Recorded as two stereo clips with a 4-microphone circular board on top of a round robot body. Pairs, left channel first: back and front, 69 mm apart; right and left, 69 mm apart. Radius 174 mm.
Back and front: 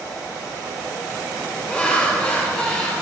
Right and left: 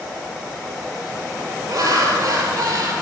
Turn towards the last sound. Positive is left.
turn(degrees=110)